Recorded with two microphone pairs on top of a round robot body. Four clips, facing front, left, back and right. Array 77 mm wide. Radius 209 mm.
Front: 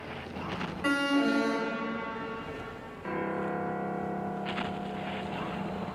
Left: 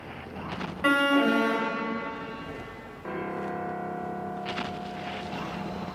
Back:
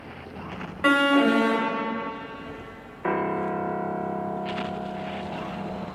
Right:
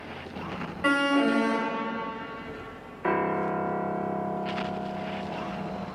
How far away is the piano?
About 1.4 m.